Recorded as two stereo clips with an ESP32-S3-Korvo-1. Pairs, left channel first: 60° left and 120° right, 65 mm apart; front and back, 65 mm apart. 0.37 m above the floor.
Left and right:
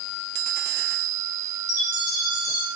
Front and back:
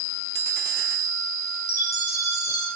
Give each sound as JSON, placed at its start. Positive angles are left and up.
{"t": 1.7, "sound": "a chime", "azimuth_deg": 35, "distance_m": 5.0}